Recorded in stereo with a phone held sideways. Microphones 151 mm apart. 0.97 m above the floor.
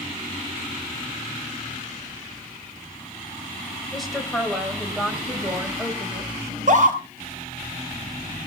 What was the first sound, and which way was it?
A woman speaking, centre (ahead or behind).